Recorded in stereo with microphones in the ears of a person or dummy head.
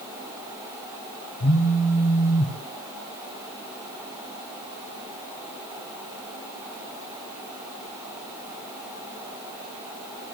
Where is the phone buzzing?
65° left (ahead or behind), 2.0 m.